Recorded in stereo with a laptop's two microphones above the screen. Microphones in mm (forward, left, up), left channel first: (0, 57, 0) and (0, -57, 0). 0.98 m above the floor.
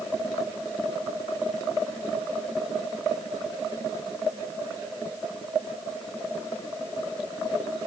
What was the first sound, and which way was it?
Only background noise.